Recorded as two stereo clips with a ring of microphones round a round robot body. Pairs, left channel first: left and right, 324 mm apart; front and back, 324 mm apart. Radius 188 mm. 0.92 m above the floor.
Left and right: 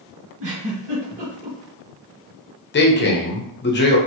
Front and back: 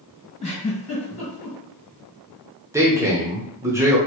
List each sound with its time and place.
0.4 s a giggle: 65° right, 1.2 m
2.7 s a man speaking: 105° left, 0.9 m